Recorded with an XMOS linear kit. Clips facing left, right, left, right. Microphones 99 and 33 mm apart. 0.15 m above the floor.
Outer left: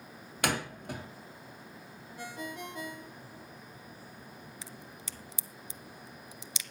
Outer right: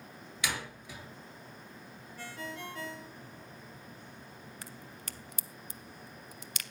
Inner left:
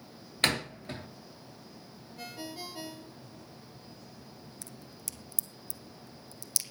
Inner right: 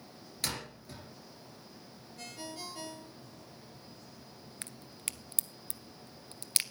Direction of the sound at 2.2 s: 15° left (ahead or behind).